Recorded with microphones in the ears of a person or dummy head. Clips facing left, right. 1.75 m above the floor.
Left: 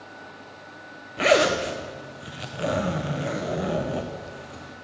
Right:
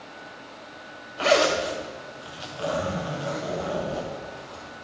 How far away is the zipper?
About 0.6 m.